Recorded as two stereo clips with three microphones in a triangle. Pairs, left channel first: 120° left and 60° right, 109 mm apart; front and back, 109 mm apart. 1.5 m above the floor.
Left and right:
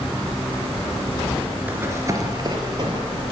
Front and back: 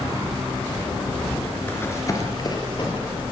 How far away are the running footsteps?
About 1.5 m.